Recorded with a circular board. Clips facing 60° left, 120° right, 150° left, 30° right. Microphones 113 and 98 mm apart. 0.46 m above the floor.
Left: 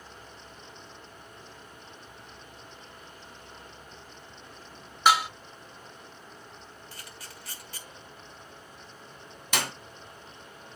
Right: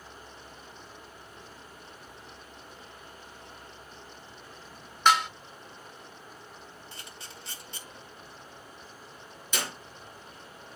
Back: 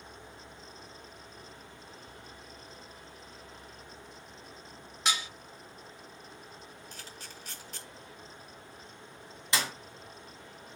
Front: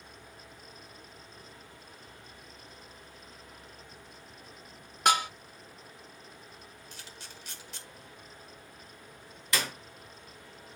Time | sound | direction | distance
5.0 | dishes clattering | 20° right | 0.5 m
6.9 | a camera shutter | straight behind | 1.6 m
9.5 | a clap | 85° left | 1.9 m